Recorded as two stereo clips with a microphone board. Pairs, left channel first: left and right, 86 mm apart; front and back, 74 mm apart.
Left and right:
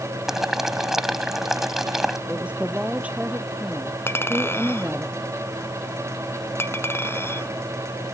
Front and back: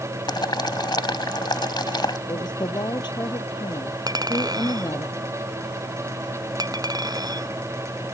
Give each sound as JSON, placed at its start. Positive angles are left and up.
{"t": 0.3, "sound": "boiling", "azimuth_deg": -5}
{"t": 2.3, "sound": "a woman speaking", "azimuth_deg": -15}
{"t": 4.1, "sound": "a clink", "azimuth_deg": 150}